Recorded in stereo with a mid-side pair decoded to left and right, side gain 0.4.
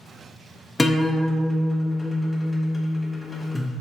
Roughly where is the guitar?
Ahead.